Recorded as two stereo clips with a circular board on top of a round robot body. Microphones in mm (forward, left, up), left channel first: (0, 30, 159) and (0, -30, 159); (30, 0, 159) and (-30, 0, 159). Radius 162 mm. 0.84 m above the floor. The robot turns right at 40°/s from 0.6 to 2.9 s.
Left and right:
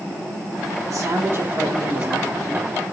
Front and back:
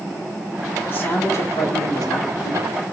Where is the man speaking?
60° right, 2.5 m; by 2.8 s 15° left, 2.5 m.